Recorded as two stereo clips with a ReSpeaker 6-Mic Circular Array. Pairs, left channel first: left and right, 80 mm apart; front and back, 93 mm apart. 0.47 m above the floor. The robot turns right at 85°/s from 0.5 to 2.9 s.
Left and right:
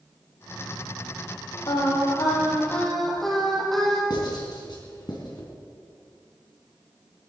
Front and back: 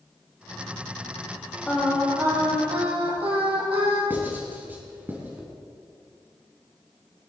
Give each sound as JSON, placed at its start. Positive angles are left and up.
{"t": 1.7, "sound": "singing", "azimuth_deg": 70, "distance_m": 5.5}
{"t": 4.1, "sound": "writing", "azimuth_deg": 110, "distance_m": 4.0}